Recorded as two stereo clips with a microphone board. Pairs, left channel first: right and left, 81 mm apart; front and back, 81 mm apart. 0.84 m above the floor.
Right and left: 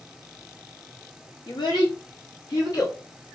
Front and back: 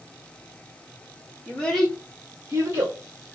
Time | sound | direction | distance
1.5 | a child speaking | 70° right | 1.1 m